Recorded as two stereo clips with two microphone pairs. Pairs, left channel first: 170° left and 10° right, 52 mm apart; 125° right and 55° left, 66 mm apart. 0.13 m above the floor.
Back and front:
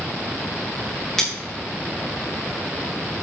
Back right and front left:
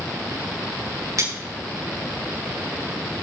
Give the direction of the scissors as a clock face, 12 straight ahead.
9 o'clock.